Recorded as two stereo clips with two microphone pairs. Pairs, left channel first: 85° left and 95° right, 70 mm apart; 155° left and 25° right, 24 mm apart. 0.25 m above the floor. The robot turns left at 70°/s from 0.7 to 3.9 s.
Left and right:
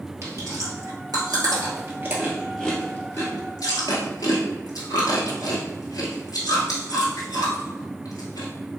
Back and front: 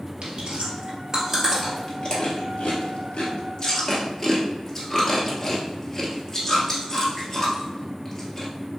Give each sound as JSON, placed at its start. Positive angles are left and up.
{"t": 0.2, "sound": "chewing", "azimuth_deg": -60, "distance_m": 1.3}